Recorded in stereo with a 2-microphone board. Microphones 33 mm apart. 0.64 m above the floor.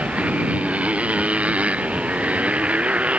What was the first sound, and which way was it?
A motorcycle, 45° right (ahead or behind).